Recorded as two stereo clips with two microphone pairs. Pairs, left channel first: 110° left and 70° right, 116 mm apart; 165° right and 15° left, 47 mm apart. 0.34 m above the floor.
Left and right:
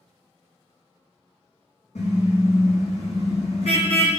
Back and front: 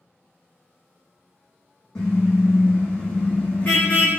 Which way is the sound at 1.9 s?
120° left.